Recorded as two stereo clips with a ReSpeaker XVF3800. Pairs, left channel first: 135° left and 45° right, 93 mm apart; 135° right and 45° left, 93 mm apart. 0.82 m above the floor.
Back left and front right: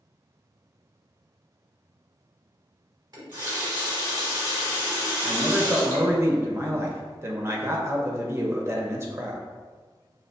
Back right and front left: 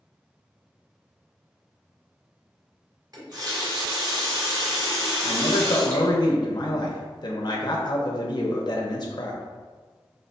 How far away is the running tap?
About 1.4 m.